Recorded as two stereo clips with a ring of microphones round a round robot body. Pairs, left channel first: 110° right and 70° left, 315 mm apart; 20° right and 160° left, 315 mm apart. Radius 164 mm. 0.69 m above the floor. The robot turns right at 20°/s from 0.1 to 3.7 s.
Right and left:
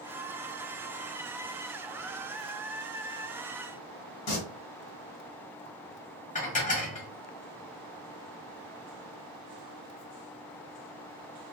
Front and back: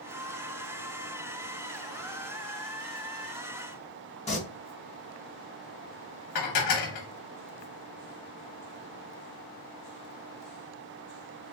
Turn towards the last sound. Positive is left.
turn(degrees=-45)